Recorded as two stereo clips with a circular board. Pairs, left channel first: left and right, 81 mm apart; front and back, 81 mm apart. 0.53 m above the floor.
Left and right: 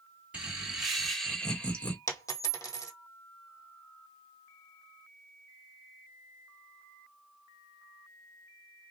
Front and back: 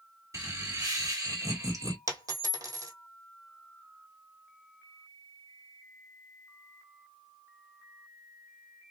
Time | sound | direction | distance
0.3 | laughter | 160° right | 1.5 m
2.1 | a dropped coin | 135° left | 1.5 m